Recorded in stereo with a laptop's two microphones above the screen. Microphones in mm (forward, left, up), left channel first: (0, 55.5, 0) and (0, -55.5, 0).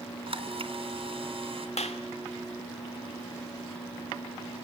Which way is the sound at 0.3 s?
60° right (ahead or behind).